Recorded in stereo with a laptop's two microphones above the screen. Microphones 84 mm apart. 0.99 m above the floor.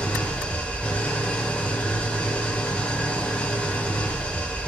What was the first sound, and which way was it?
An engine running, 15° left (ahead or behind).